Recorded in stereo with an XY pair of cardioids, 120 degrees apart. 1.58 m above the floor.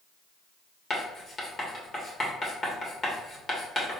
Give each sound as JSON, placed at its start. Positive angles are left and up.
{"t": 0.9, "sound": "writing", "azimuth_deg": 30, "distance_m": 1.8}